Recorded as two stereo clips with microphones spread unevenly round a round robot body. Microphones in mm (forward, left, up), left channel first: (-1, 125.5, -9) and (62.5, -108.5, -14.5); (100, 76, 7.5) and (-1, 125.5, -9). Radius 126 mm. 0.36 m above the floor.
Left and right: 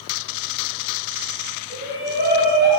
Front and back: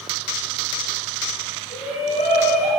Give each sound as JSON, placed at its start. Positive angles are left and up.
{"t": 1.7, "sound": "a shout", "azimuth_deg": -25, "distance_m": 5.5}